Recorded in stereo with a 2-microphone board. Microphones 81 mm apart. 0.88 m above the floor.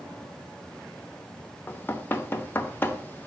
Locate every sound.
1.7 s knocking: 25° left (ahead or behind), 0.8 m